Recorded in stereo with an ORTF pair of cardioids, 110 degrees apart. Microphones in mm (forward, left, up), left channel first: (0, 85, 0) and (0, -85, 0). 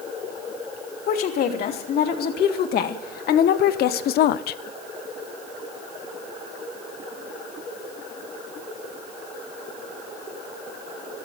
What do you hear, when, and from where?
1.1 s a woman speaking: 65° left, 3 m; by 4.6 s 75° left, 0.6 m